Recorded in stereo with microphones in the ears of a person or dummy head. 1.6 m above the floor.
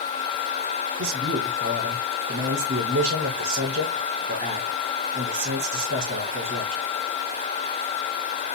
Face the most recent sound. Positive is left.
turn(degrees=-60)  # may be behind; listen again after turning